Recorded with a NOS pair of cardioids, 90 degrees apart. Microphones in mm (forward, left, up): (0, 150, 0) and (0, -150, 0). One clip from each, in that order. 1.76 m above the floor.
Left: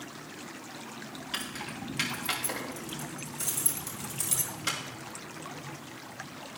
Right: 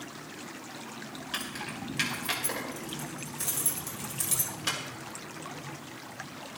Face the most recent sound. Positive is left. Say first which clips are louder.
# right 1 dB
turn(degrees=-5)